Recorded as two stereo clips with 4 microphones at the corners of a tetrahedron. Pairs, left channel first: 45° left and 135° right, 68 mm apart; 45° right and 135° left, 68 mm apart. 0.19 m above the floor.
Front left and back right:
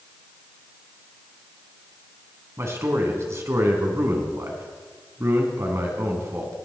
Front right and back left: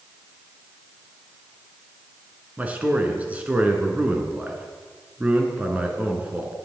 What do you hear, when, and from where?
2.6 s a man speaking: 165° right, 1.7 m